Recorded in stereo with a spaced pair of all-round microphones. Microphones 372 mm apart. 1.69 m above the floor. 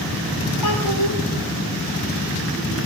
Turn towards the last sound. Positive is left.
turn(degrees=75)  # may be behind; listen again after turning